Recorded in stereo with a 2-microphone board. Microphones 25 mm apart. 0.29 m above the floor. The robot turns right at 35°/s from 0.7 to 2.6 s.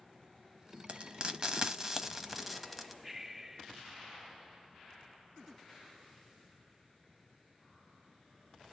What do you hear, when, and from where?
0.9 s frying: 45° right (ahead or behind), 1.0 m; by 2.9 s centre (ahead or behind), 1.0 m
3.0 s breathing: 10° right (ahead or behind), 0.6 m